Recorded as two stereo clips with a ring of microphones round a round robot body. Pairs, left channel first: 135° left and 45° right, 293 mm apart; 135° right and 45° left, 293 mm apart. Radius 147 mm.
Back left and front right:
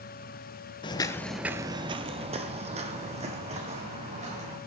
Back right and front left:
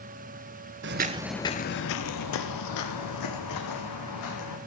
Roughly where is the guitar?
I don't hear a guitar.